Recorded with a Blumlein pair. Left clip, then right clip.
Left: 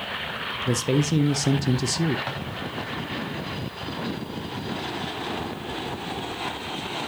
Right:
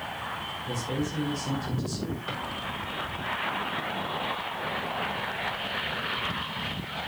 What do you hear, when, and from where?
0.7 s a man speaking: 55° left, 0.7 m
2.3 s a drawer: 45° left, 4 m